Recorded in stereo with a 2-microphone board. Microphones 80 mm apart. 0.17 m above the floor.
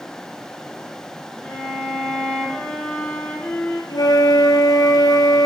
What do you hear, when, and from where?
1.4 s a violin: 15° left (ahead or behind), 2 m
3.9 s a flute: 60° left (ahead or behind), 0.8 m